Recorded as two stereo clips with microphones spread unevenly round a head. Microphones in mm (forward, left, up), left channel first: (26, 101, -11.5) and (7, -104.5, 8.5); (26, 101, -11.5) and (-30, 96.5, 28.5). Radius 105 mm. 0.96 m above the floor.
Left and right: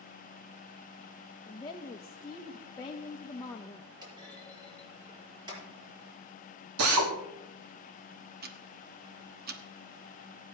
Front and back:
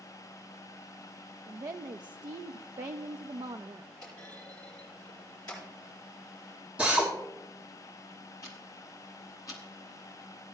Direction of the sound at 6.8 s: 85° right.